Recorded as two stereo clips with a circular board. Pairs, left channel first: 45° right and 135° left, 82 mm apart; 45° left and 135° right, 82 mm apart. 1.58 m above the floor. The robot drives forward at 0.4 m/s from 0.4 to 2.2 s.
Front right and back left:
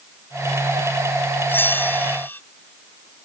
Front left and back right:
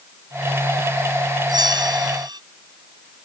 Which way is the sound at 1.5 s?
110° right.